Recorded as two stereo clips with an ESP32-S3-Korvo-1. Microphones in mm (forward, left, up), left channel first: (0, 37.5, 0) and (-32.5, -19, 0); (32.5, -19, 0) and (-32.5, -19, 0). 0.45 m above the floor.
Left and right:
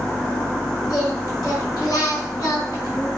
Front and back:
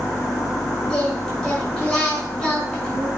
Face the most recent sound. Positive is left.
turn(degrees=80)